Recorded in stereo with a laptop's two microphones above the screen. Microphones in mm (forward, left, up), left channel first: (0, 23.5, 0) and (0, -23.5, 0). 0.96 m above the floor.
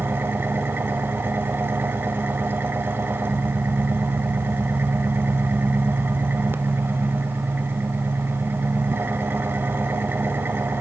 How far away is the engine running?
About 1.2 m.